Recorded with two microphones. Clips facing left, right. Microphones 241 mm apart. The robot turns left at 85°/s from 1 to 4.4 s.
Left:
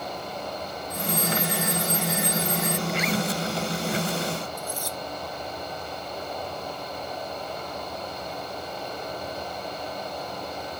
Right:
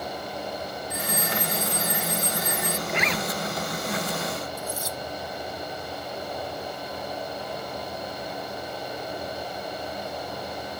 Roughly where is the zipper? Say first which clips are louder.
Left 2 dB; ahead right.